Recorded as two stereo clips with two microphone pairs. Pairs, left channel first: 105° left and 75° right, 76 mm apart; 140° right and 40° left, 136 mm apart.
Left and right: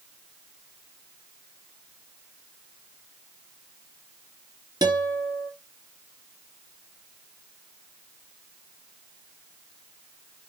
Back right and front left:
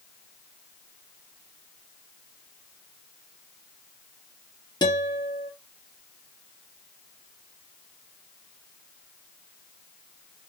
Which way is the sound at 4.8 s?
90° right.